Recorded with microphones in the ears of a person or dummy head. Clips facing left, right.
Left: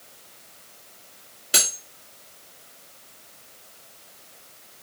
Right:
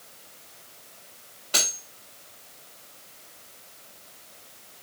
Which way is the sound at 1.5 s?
25° left (ahead or behind).